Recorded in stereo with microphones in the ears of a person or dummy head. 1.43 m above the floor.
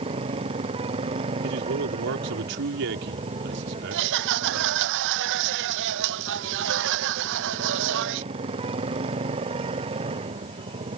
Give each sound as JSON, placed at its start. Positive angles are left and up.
{"t": 0.0, "sound": "a motorcycle", "side_deg": -30}
{"t": 1.4, "sound": "a man speaking", "side_deg": -65}
{"t": 3.9, "sound": "laughter", "side_deg": -65}